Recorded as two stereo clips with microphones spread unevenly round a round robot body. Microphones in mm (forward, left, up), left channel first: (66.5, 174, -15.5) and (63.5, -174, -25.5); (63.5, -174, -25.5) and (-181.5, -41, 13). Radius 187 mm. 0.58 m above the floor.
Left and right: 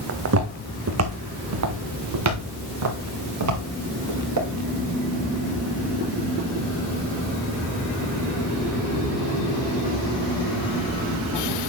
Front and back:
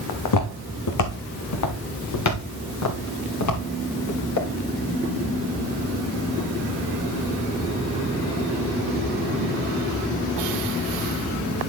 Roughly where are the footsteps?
Ahead right.